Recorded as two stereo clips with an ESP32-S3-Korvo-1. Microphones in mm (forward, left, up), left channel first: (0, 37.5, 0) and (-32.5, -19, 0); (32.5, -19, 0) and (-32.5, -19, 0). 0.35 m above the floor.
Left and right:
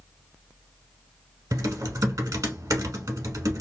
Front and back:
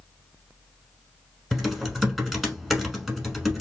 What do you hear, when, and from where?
1.5 s typing on a keyboard: 90° right, 1.0 m